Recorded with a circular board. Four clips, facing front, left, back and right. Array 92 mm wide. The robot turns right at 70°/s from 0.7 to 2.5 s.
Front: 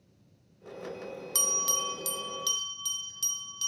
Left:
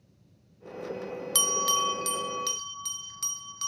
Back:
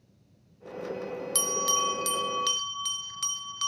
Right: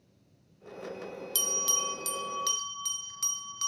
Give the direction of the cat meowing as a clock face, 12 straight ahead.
No cat meowing in this recording.